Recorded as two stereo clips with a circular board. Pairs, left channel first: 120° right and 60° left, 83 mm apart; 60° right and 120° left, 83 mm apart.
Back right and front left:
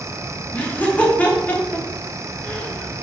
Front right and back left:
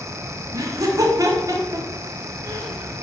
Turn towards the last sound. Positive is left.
turn(degrees=170)